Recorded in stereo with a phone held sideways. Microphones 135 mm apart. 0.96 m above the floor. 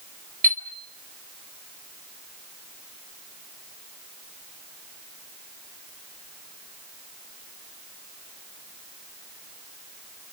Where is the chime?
85° right, 3.5 m.